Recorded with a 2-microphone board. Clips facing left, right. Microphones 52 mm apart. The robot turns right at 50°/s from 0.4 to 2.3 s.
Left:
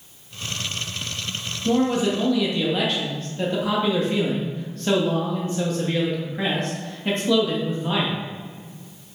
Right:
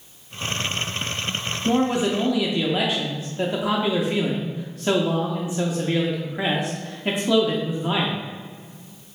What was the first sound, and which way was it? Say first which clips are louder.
A man speaking: left 1 dB; 20° right (ahead or behind).